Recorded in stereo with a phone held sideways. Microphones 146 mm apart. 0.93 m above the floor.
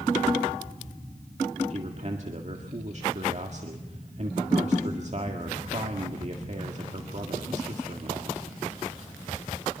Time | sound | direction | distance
1.7 | a man speaking | 50° right (ahead or behind) | 1.9 m